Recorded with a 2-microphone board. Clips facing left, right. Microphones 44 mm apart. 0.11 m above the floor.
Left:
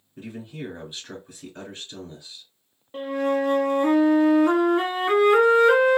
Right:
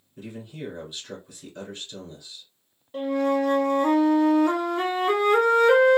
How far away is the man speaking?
About 1.7 m.